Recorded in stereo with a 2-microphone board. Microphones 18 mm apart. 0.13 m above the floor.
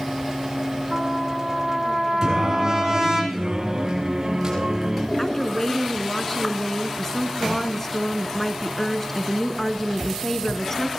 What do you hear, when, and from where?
0.9 s a trumpet: 30° right (ahead or behind), 8 m
2.2 s singing: 35° right (ahead or behind), 6.5 m
5.2 s a woman speaking: 20° left (ahead or behind), 1.7 m